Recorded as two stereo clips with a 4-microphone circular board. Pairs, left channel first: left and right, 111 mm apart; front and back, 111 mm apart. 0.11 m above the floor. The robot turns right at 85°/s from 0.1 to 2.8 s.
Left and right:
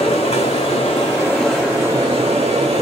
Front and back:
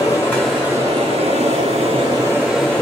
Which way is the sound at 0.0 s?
55° left.